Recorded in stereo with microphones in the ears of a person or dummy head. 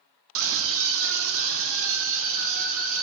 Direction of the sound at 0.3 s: 75° right (ahead or behind).